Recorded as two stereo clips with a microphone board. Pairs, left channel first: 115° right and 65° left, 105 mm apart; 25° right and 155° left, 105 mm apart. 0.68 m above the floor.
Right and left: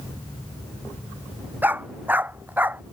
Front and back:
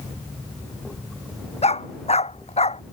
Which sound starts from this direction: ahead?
A dog barking, at 1.6 s.